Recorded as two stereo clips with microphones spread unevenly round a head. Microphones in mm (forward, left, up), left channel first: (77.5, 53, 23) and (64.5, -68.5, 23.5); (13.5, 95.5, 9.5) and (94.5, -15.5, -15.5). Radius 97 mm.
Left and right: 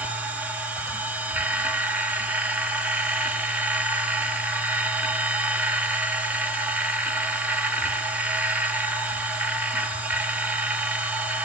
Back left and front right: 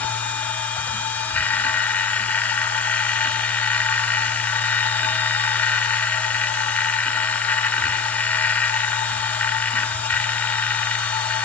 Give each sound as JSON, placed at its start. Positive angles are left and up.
{"t": 0.0, "sound": "a machine running", "azimuth_deg": -170, "distance_m": 1.5}